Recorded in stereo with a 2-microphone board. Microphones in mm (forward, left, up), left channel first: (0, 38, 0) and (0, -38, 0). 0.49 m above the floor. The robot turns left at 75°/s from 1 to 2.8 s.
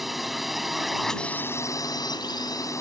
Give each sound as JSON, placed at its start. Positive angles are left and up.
{"t": 0.0, "sound": "a drone", "azimuth_deg": 180}